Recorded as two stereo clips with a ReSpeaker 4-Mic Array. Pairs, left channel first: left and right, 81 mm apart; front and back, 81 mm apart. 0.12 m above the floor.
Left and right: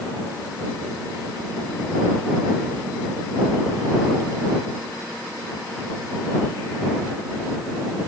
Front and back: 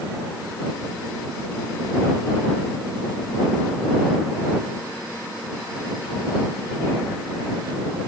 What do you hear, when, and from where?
Only background noise.